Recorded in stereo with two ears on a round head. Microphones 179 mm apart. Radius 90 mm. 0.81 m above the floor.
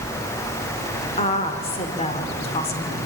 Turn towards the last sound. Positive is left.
turn(degrees=30)  # may be behind; listen again after turning